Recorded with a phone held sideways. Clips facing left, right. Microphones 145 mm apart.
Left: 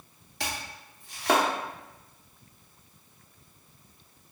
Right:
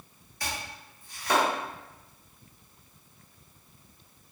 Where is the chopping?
70° left (ahead or behind), 0.8 m.